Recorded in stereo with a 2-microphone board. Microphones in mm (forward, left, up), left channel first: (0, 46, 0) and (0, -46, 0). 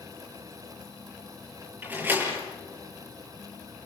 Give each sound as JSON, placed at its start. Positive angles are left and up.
{"t": 1.8, "sound": "a door slam", "side_deg": -20, "distance_m": 7.0}